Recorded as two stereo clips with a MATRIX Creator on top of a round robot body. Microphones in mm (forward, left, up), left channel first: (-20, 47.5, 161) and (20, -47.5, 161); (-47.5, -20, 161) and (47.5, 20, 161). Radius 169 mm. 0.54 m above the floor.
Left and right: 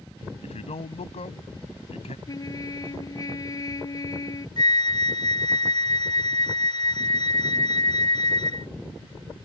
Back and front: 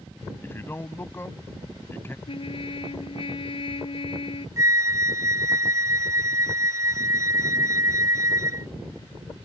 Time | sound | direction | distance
0.4 | a man speaking | 135° left | ?
2.3 | a trumpet | 165° left | ?
4.6 | a flute | 80° left | ?